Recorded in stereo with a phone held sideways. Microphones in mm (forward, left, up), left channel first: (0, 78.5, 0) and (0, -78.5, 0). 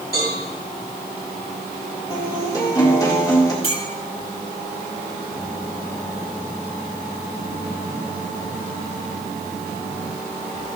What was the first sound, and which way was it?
A cowbell, 85° left.